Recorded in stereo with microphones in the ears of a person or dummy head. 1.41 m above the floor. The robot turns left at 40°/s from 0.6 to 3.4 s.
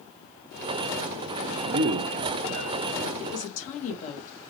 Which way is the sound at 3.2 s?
50° left (ahead or behind).